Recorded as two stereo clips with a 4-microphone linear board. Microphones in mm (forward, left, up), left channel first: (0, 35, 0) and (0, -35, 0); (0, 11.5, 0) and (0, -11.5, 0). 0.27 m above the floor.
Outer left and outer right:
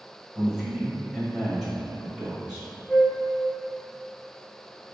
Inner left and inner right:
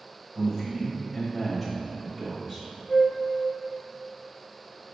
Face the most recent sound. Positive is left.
turn(degrees=20)  # may be behind; listen again after turning